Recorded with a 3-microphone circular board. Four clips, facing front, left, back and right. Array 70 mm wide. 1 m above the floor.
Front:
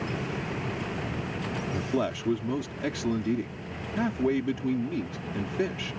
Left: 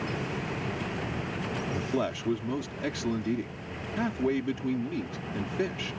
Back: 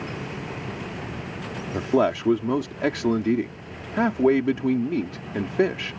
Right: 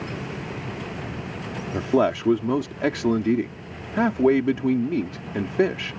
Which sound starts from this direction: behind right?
A man speaking, at 1.7 s.